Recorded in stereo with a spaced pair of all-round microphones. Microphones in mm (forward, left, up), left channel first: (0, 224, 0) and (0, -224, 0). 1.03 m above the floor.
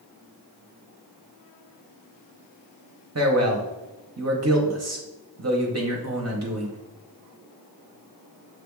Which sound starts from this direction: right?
A man speaking, at 3.1 s.